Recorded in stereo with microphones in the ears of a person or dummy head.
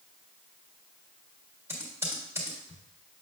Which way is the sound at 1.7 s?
15° right (ahead or behind).